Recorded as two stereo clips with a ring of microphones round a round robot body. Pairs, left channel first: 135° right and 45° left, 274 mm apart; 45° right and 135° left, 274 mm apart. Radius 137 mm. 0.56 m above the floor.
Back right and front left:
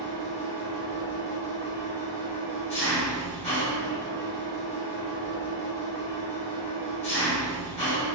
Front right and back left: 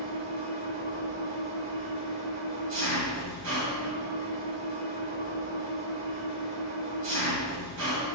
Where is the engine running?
165° left, 1.4 m.